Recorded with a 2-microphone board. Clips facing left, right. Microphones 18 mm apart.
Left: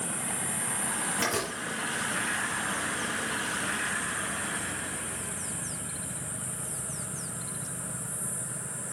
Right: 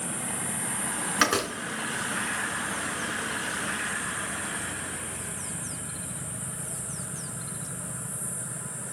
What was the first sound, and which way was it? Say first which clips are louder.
A door slam: right 7 dB; 75° right (ahead or behind).